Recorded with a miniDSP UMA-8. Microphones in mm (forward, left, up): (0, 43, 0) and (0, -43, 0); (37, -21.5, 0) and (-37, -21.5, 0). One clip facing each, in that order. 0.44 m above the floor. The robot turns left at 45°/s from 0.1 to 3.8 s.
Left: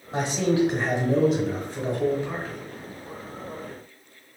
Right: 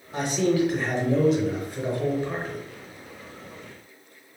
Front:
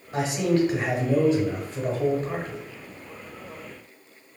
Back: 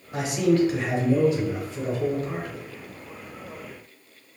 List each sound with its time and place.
0.1 s a man speaking: 75° left, 0.9 m; by 2.6 s 35° right, 0.9 m